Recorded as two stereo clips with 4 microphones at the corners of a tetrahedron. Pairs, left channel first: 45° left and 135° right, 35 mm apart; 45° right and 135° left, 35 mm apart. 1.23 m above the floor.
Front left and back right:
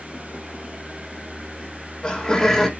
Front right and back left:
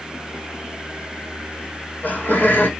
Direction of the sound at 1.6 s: 10° right.